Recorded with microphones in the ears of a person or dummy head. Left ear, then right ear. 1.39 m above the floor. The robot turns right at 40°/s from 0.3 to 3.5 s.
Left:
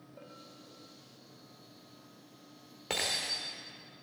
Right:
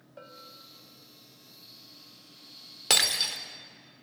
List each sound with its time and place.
0.2 s a bell: 45° right (ahead or behind), 2.5 m; by 0.7 s 35° right (ahead or behind), 2.5 m
2.9 s breaking glass: 65° right (ahead or behind), 2.5 m; by 3.4 s 45° right (ahead or behind), 2.5 m